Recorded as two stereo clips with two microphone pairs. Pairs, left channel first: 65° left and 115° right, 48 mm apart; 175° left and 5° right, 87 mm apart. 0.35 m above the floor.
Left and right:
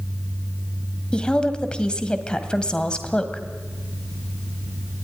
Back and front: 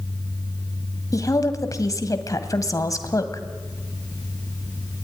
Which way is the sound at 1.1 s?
135° left.